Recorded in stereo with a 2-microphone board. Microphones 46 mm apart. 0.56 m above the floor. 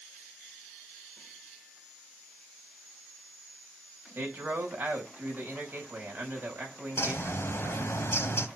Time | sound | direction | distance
4.2 | a man speaking | 45° right (ahead or behind) | 4.5 m
7.0 | a bird | 60° left (ahead or behind) | 1.0 m